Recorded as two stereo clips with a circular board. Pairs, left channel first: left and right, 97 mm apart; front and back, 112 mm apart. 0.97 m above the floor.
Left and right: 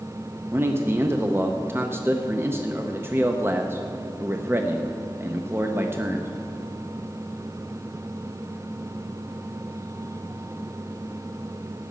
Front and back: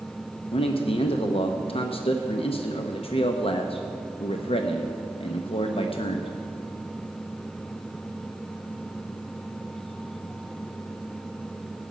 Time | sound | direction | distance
0.5 | a man speaking | 25° right | 0.7 m